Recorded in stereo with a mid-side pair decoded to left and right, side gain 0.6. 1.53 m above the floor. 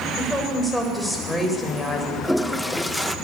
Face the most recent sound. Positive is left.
turn(degrees=5)